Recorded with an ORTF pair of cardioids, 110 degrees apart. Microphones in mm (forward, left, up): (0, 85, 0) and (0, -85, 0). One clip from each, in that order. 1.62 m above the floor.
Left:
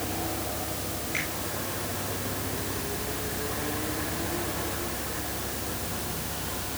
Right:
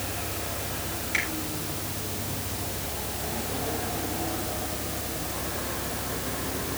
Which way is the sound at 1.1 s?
40° right.